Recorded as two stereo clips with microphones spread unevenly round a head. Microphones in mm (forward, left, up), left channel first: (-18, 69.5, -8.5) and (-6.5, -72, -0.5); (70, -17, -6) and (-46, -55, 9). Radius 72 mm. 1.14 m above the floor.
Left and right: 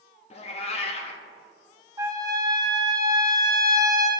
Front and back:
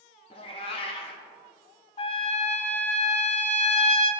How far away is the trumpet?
About 0.8 m.